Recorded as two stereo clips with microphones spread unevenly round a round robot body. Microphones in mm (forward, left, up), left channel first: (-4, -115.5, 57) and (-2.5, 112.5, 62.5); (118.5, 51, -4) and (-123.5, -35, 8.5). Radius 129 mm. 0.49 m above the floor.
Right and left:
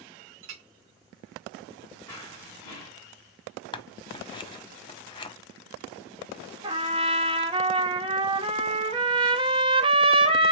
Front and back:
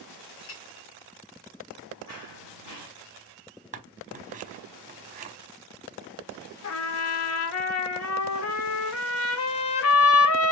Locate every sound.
0.4 s a clink: 60° left, 1.5 m
2.1 s running footsteps: 15° right, 3 m
3.7 s scissors: 130° right, 1.0 m
6.6 s a trumpet: 25° left, 1.1 m